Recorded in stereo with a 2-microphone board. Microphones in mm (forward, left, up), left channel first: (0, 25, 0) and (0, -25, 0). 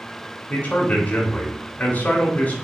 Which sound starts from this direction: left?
A man speaking, at 0.5 s.